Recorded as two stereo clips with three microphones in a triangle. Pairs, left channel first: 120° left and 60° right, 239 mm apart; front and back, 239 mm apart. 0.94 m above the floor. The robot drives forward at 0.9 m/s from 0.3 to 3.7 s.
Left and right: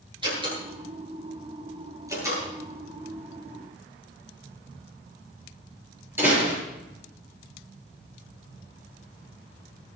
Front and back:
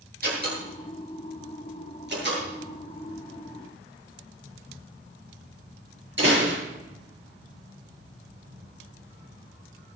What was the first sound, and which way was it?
A door slam, 130° right.